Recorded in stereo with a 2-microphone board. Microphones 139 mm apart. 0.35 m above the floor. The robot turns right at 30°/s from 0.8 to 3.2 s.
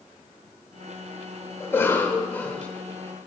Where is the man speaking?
I don't hear a man speaking.